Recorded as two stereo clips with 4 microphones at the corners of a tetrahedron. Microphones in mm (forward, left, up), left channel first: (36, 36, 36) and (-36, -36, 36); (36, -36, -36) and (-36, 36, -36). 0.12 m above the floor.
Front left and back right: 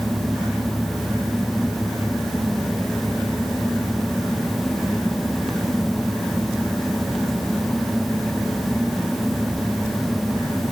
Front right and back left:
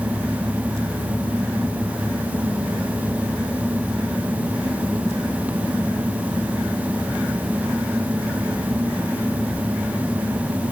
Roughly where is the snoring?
I don't hear snoring.